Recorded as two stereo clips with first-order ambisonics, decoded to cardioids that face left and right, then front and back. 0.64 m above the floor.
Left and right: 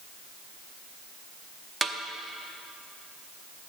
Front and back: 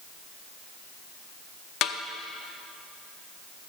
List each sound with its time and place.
1.8 s a snare drum: 10° right, 0.6 m